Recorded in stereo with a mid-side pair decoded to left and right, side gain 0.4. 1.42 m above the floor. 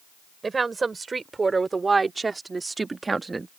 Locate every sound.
0.4 s a woman speaking: 35° right; by 3.5 s 25° right